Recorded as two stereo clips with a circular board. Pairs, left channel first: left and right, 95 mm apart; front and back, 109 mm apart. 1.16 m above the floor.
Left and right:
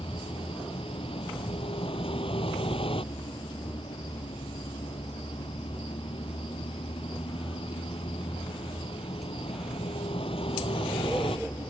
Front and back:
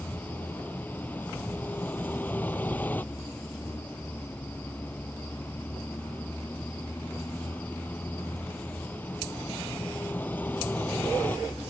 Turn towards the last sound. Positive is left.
turn(degrees=75)